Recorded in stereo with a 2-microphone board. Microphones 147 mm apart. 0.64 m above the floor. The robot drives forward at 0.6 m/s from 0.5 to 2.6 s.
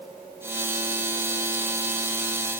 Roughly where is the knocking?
No knocking in this recording.